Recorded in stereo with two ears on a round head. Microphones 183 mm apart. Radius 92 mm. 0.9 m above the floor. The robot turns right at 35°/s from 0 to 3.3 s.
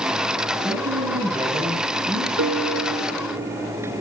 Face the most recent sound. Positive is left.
turn(degrees=-45)